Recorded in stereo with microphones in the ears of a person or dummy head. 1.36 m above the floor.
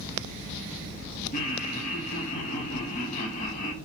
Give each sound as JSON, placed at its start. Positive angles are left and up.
{"t": 1.3, "sound": "laughter", "side_deg": 40, "distance_m": 0.8}